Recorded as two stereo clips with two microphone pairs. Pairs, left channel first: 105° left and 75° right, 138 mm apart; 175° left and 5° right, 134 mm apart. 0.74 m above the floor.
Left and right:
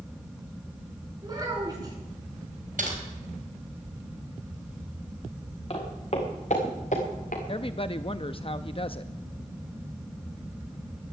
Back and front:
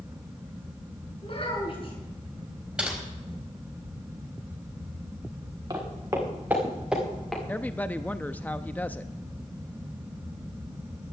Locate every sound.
1.2 s a child speaking: 135° right, 7 m
2.8 s typing on a keyboard: 85° right, 4.5 m
5.7 s footsteps: 60° left, 4.5 m; by 7.4 s 90° left, 4.5 m
7.5 s a woman speaking: 110° left, 0.5 m